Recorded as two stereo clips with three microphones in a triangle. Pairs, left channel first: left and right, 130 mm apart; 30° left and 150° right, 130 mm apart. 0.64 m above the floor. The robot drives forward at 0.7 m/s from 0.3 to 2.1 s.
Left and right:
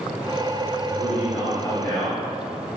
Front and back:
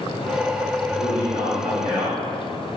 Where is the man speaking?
175° right, 2.5 m.